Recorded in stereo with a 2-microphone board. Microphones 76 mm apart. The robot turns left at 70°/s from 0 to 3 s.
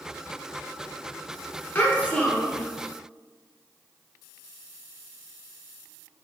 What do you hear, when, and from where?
1.8 s a child speaking: 60° left, 0.8 m; by 2.6 s straight ahead, 0.8 m